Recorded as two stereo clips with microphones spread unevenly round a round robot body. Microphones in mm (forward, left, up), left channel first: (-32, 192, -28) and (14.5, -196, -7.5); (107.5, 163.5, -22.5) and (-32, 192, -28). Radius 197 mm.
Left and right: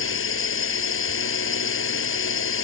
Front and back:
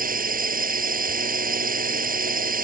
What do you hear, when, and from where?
0.0 s a drone: 155° left